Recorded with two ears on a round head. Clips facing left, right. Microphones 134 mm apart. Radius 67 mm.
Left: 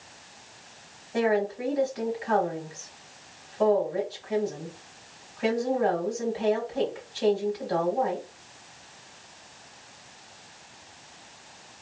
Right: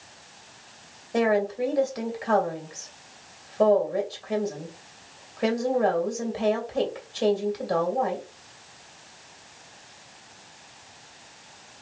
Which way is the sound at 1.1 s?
55° right (ahead or behind).